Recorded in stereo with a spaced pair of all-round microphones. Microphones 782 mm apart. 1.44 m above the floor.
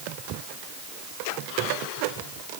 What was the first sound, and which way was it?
Only background noise.